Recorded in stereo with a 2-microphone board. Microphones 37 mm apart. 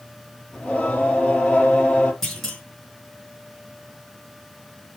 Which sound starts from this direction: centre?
A clunk, at 2.2 s.